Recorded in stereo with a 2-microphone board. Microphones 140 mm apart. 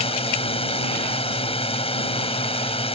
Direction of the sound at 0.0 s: 45° left (ahead or behind).